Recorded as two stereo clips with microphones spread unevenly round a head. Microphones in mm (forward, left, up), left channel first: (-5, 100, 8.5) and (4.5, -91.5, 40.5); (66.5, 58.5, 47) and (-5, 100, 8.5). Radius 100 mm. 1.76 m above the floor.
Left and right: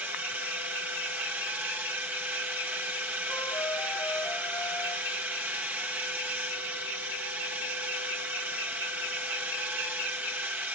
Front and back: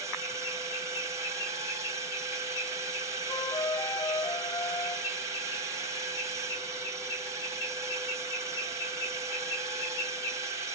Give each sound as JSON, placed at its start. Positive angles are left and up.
{"t": 0.0, "sound": "a drone", "azimuth_deg": -170}
{"t": 3.3, "sound": "a flute", "azimuth_deg": 10}